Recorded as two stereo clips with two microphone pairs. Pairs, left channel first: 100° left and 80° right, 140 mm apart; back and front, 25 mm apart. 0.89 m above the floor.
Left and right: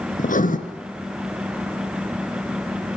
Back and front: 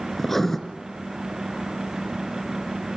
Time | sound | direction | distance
0.2 | writing | 100° left | 2.5 m